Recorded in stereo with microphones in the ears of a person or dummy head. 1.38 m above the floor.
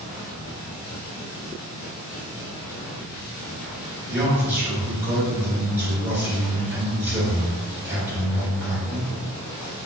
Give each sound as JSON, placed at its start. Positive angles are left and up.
{"t": 4.1, "sound": "a man speaking", "side_deg": -10, "distance_m": 1.8}